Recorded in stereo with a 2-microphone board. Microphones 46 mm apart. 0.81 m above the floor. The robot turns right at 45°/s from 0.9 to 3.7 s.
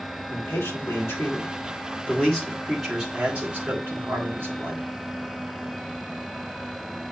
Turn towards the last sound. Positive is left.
turn(degrees=-135)